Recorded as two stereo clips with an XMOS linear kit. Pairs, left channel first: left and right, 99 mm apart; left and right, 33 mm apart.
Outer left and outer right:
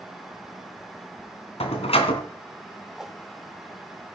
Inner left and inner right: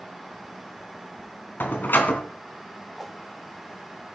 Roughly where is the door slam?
Left.